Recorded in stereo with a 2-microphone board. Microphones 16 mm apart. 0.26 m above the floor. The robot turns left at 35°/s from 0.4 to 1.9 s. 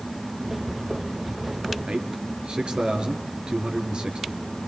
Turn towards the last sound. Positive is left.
turn(degrees=-75)  # may be behind; listen again after turning